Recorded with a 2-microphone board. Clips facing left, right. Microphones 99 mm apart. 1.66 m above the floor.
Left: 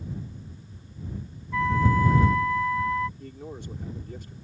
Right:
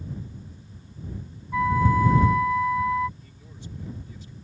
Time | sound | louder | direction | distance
1.5 | a flute | right 2 dB | 15° right (ahead or behind) | ?
3.2 | a man speaking | left 8 dB | 60° left (ahead or behind) | ?